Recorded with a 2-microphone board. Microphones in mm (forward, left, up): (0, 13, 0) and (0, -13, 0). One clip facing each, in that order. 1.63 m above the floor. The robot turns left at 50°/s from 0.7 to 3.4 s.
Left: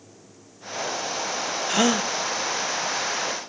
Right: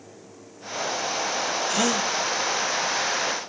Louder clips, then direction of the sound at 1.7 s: Left 4 dB; 20° left (ahead or behind).